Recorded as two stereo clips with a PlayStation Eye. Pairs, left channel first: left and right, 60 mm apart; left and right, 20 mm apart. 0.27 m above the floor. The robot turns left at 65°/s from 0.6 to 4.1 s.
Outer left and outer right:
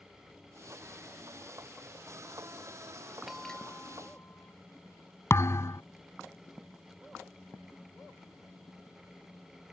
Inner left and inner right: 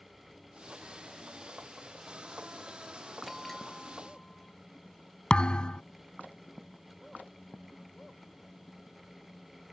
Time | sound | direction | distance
3.3 | a bell | 175° right | ?
5.3 | a thud | 50° left (ahead or behind) | ?